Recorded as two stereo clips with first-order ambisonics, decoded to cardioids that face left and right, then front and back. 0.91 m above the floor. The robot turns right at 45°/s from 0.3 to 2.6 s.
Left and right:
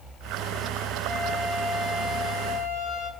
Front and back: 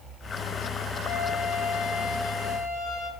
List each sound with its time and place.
1.1 s a flute: 10° right, 2.5 m; by 3.1 s 60° left, 2.5 m